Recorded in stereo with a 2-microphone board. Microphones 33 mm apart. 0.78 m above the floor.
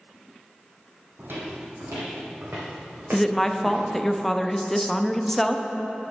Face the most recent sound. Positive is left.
turn(degrees=10)  # may be behind; listen again after turning